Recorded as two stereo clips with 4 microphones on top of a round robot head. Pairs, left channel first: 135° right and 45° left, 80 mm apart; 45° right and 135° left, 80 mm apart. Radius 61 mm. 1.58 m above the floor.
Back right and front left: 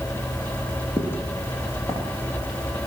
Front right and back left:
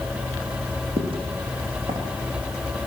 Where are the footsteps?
155° left, 5.5 m; by 2.0 s 165° left, 6.5 m.